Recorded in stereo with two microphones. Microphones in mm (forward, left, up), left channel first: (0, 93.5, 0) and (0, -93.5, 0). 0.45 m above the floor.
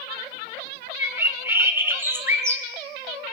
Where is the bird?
15° right (ahead or behind), 0.6 m.